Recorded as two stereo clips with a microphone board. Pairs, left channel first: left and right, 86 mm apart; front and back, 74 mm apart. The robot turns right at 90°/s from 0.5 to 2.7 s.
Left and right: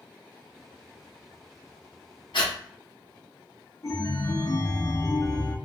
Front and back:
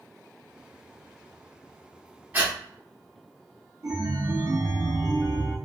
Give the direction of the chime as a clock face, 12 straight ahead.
7 o'clock.